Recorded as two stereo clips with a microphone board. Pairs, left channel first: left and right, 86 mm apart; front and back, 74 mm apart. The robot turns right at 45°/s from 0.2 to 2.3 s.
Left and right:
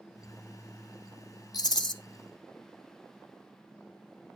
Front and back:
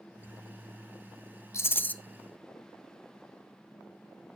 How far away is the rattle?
About 0.6 m.